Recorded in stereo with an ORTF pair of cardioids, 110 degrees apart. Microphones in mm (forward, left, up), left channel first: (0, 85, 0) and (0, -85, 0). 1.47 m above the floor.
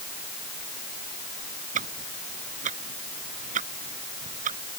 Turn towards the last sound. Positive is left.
turn(degrees=-50)